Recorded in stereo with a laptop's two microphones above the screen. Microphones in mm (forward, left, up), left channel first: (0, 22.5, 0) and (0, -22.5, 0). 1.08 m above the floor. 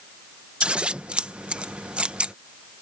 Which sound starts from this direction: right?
Scissors, at 0.6 s.